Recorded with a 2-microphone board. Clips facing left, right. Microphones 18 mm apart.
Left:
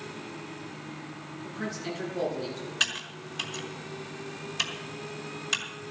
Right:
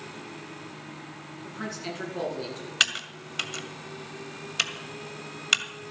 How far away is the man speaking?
About 9.5 m.